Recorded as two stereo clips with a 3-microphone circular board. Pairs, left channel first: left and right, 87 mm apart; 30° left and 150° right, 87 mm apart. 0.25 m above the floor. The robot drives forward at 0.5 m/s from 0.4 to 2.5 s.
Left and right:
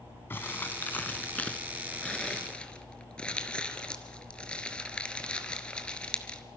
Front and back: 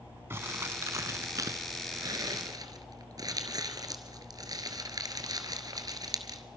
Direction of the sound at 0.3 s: 155° left.